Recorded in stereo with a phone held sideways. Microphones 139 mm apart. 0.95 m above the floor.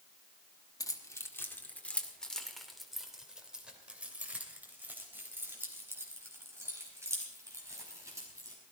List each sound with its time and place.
0.8 s keys jangling: 25° left (ahead or behind), 1.4 m; by 8.6 s 20° right (ahead or behind), 5 m